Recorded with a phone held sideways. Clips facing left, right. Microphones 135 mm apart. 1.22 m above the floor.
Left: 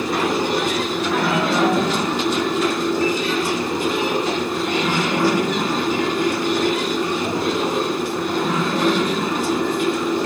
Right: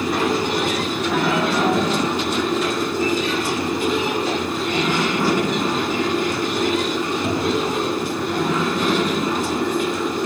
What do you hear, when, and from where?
0.0 s running water: 75° left (ahead or behind), 4 m